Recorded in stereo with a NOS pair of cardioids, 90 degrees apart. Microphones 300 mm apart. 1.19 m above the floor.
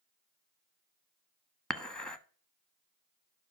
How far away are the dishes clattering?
About 1.0 m.